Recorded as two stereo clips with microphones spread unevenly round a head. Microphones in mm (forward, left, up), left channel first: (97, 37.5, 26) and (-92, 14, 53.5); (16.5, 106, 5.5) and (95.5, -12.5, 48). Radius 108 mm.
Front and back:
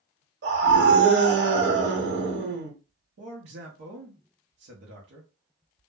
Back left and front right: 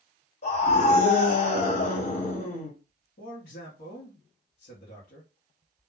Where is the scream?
155° left, 1.3 m.